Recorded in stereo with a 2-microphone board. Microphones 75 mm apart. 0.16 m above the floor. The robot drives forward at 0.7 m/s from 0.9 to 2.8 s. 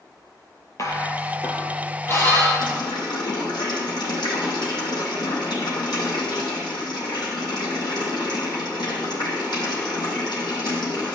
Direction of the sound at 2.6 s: 80° left.